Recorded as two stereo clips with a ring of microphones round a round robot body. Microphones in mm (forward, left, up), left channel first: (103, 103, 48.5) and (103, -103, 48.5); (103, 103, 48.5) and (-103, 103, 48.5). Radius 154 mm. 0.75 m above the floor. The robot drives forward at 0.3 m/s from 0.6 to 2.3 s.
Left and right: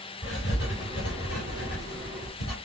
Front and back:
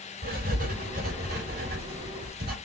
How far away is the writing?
About 3.5 m.